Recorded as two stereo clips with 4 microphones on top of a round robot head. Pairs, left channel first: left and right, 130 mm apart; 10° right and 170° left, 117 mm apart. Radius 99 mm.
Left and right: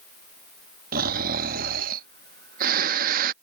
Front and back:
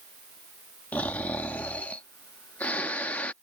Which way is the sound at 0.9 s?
90° right.